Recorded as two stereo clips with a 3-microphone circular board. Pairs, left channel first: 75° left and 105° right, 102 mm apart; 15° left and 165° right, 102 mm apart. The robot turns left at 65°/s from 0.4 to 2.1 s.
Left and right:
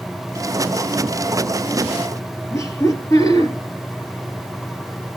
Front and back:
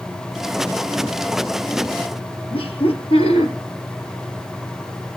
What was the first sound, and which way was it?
Laughter, 20° left.